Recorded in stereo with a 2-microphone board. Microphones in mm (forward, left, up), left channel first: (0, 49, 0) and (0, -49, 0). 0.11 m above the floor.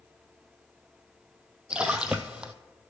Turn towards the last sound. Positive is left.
turn(degrees=-10)  # may be behind; listen again after turning